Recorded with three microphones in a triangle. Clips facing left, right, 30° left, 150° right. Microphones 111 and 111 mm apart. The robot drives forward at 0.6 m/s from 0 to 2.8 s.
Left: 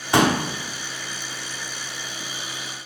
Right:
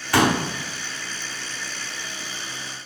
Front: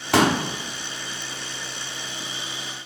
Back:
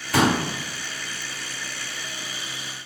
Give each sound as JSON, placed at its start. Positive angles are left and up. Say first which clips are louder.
{"t": 0.1, "sound": "a pop", "louder": "left 1 dB, front 1 dB", "azimuth_deg": 20, "distance_m": 0.8}